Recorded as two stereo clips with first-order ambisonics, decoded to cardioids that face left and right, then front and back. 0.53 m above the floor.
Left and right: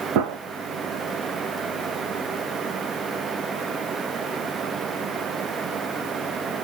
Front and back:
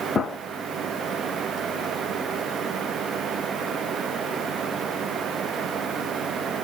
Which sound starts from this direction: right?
A gunshot, at 0.1 s.